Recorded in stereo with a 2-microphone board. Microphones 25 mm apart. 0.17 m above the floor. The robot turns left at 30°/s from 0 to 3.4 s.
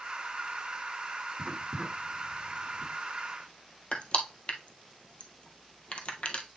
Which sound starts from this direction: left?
Crushing, at 3.9 s.